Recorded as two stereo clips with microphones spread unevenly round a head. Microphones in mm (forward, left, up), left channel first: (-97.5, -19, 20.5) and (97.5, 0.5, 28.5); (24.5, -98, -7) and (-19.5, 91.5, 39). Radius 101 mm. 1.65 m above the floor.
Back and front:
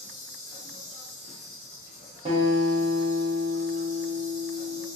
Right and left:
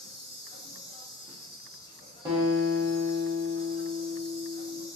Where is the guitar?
55° left, 0.9 m.